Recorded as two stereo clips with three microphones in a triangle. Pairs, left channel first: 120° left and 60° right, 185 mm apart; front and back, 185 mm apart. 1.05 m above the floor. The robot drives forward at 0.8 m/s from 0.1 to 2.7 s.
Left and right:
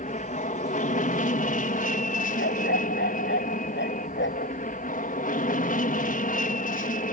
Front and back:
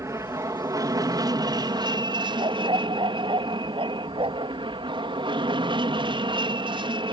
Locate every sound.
0.0 s an aircraft: 115° left; by 7.1 s 125° left
2.4 s a dog barking: 115° left; by 4.5 s 120° left